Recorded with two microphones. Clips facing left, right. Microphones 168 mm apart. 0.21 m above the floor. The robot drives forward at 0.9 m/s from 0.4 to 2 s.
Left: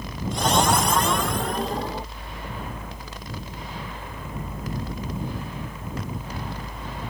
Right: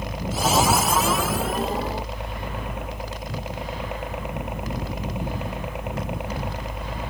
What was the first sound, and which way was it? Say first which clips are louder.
A helicopter: right 1 dB; 75° right (ahead or behind).